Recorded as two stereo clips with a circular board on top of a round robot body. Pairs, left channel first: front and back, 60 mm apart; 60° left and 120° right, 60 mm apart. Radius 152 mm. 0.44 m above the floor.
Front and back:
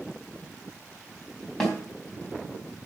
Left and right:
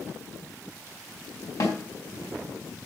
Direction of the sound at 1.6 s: 85° left.